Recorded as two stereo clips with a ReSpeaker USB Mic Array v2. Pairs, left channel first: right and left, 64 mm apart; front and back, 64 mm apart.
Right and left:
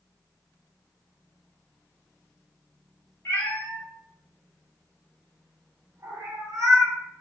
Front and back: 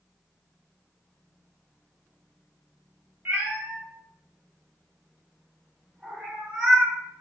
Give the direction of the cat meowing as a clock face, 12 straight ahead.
4 o'clock.